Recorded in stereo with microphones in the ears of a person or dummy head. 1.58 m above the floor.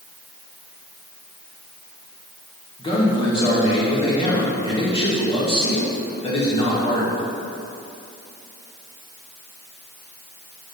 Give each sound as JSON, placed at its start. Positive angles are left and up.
{"t": 2.8, "sound": "a man speaking", "side_deg": 25, "distance_m": 1.6}